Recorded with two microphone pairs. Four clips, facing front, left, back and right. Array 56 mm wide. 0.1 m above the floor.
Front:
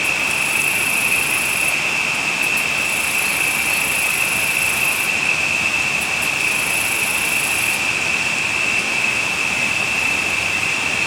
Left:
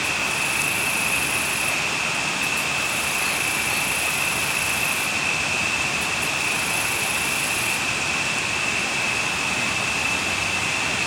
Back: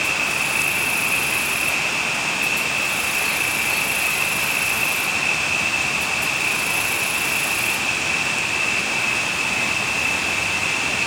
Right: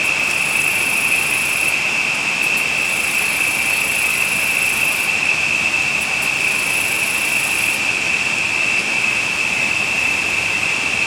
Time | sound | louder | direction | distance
0.0 | an insect | right 5 dB, front 2 dB | 65° right | 3 m